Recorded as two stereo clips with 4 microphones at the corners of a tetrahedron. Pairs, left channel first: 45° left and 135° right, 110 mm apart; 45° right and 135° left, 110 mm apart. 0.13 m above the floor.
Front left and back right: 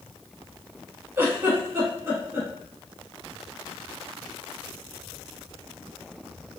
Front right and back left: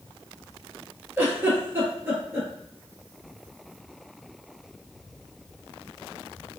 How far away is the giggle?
About 1.0 m.